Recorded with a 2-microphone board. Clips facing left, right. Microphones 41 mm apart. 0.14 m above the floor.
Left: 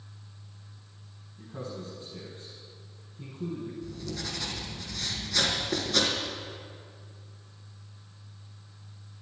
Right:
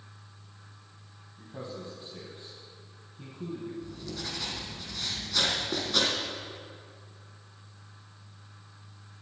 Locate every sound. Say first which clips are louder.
1.4 s a man speaking: left 1 dB; 15° right (ahead or behind), 4.5 m
3.8 s writing: left 2 dB; 10° right (ahead or behind), 4 m